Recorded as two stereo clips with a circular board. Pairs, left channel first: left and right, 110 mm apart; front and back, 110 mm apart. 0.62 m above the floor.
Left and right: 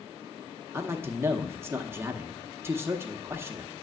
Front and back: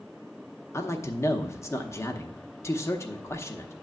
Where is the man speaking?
40° right, 0.8 m.